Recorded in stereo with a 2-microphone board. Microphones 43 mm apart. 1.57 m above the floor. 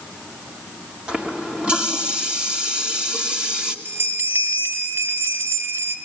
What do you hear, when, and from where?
1.1 s a running tap: 25° right (ahead or behind), 2.5 m
3.9 s a bell: 65° right (ahead or behind), 5 m